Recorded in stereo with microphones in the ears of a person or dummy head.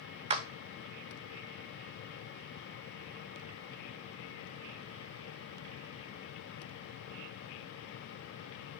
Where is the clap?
30° right (ahead or behind), 0.8 m.